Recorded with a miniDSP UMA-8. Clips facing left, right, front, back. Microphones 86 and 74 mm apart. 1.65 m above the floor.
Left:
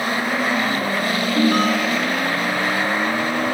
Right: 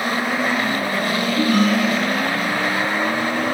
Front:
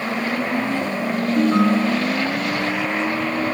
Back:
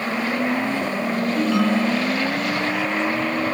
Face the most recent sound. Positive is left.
turn(degrees=55)